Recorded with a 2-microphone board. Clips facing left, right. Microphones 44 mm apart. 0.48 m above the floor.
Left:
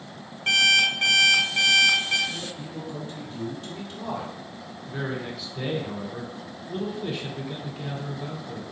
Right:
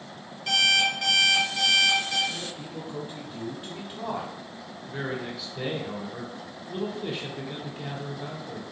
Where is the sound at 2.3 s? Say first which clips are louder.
Left 1 dB; 15° right (ahead or behind), 1.0 m.